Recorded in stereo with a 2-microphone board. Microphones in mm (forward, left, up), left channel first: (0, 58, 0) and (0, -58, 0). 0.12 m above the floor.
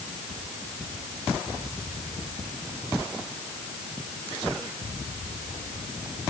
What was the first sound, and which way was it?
Only background noise.